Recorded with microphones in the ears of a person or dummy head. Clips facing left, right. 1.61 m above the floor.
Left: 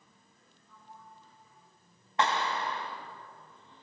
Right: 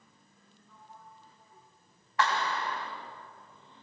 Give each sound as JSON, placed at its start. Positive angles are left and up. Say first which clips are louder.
{"t": 0.7, "sound": "a sliding door", "louder": "even", "side_deg": -50, "distance_m": 2.5}
{"t": 2.2, "sound": "a clap", "louder": "even", "side_deg": 20, "distance_m": 3.0}